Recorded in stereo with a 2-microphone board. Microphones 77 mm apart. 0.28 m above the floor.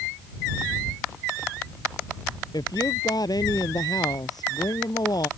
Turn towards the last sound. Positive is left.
turn(degrees=60)  # may be behind; listen again after turning